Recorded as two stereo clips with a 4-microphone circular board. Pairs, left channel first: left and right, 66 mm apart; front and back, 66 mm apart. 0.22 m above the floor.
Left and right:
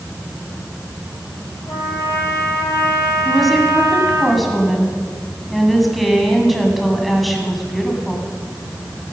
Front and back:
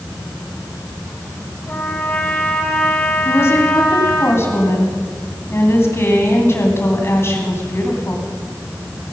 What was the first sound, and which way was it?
A trumpet, 70° left.